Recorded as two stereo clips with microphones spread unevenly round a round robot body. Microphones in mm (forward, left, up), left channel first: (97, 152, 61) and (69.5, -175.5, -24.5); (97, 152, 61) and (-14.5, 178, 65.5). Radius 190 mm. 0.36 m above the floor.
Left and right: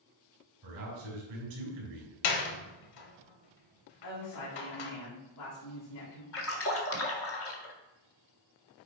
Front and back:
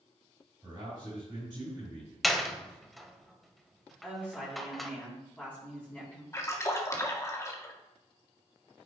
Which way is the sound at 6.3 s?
35° left.